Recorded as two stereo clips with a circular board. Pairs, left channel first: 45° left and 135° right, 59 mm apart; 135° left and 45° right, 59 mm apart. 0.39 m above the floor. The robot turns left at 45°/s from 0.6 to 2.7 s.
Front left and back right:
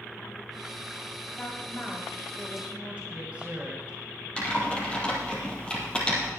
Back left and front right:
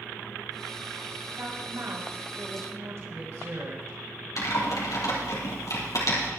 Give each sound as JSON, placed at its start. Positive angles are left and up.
{"t": 1.4, "sound": "a woman speaking", "azimuth_deg": -10, "distance_m": 2.5}
{"t": 4.4, "sound": "typing on a keyboard", "azimuth_deg": 115, "distance_m": 3.5}